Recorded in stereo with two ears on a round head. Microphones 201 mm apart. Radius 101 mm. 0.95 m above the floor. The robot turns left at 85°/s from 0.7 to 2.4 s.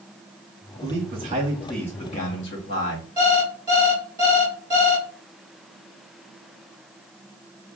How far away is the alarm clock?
About 3 m.